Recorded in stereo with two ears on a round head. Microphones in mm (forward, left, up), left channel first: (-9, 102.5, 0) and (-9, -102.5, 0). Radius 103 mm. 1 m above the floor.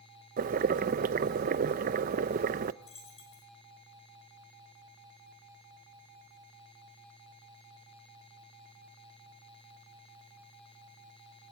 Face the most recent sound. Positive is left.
turn(degrees=25)  # may be behind; listen again after turning